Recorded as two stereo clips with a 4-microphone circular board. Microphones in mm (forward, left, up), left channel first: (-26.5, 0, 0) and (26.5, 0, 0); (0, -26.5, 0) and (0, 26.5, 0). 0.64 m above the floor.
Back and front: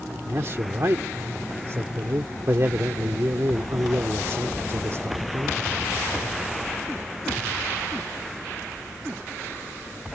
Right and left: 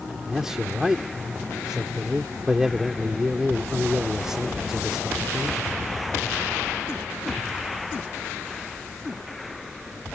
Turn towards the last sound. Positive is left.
turn(degrees=10)